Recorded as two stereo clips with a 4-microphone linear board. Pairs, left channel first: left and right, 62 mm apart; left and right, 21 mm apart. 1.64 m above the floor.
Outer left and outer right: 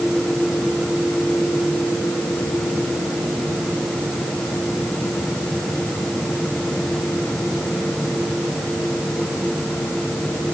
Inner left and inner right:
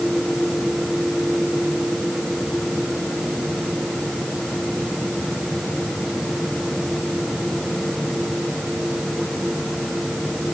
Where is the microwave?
No microwave in this recording.